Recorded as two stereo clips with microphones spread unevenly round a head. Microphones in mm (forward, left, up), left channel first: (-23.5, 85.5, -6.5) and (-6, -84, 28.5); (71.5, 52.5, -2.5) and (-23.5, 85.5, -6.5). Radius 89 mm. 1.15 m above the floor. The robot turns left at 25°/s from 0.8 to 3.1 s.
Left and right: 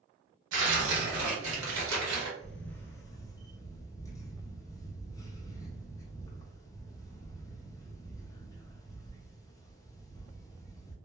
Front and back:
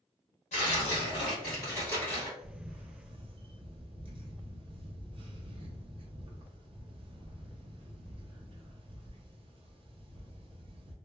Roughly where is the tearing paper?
Right.